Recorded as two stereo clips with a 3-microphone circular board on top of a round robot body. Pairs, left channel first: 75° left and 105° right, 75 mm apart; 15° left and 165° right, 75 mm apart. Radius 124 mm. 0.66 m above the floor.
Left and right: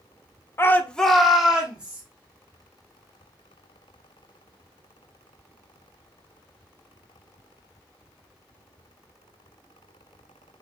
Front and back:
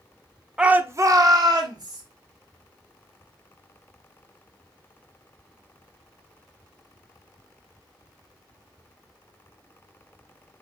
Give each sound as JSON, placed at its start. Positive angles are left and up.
{"t": 0.6, "sound": "a shout", "azimuth_deg": 115, "distance_m": 0.6}